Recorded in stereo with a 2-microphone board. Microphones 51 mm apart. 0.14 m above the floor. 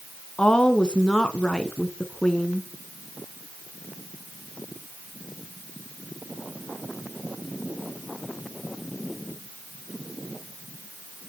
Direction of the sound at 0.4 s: 20° left (ahead or behind).